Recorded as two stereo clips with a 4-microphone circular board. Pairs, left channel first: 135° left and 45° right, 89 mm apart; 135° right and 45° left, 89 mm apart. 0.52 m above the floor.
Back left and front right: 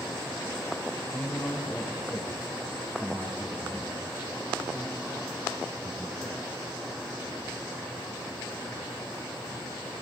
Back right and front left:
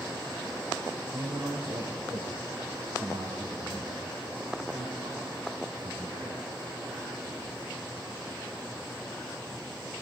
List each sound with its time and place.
1.1 s a man speaking: 60° left, 3.5 m; by 6.4 s 25° left, 7 m